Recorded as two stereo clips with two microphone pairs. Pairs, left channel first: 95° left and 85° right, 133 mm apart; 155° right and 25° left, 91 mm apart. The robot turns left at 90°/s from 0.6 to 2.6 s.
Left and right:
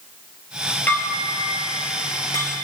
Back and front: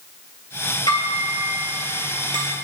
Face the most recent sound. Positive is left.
turn(degrees=15)